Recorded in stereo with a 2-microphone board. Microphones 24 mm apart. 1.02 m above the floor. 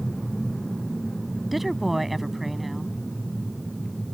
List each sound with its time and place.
1.5 s a woman speaking: centre (ahead or behind)